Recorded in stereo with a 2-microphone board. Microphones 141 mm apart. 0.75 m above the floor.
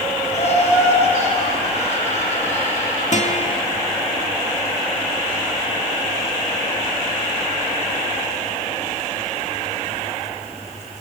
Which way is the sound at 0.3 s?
50° left (ahead or behind).